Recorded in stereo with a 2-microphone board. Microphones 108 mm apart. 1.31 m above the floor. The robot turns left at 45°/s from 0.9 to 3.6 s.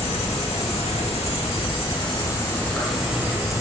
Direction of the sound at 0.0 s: 95° left.